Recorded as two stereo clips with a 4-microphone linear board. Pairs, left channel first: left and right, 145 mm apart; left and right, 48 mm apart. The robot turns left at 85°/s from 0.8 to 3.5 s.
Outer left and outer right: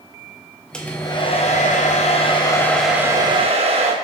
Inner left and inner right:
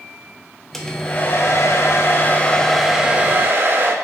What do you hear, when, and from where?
0.7 s a hair dryer: 175° left, 0.5 m; by 4.0 s 55° right, 0.5 m